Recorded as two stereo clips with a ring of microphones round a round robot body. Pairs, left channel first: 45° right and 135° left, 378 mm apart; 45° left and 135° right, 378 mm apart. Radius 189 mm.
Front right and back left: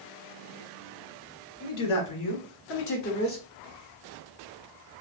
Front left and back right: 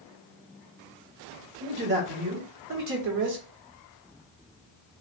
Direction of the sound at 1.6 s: 70° right.